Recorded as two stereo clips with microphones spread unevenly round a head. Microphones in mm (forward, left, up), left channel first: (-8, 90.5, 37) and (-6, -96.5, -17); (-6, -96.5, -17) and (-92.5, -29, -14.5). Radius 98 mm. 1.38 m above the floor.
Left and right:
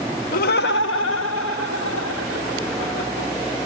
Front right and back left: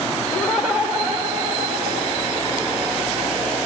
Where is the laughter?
40° left, 0.9 m; by 3.3 s 80° left, 4 m.